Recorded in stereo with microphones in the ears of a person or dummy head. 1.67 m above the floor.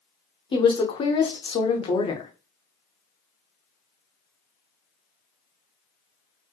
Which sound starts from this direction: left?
A woman speaking, at 0.5 s.